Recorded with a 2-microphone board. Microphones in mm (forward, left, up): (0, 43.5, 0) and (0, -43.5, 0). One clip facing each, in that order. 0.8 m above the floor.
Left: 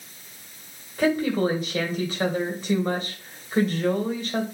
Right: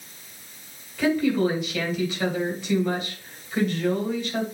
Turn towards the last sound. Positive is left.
turn(degrees=40)  # may be behind; listen again after turning